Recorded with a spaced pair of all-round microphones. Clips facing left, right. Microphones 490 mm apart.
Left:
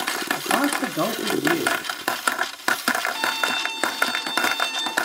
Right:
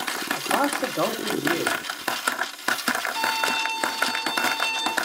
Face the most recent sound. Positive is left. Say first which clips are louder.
# even
turn(degrees=20)  # may be behind; listen again after turning